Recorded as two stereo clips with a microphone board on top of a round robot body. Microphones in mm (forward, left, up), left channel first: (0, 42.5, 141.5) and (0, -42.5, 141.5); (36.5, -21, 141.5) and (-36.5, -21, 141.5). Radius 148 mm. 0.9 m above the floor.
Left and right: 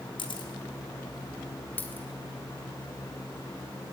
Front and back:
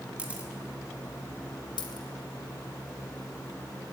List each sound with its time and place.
0.2 s a camera shutter: 105° left, 2.5 m
1.8 s a dropped coin: 20° left, 1.4 m